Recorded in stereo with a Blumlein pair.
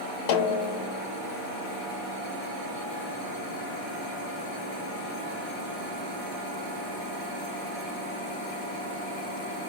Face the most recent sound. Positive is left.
turn(degrees=45)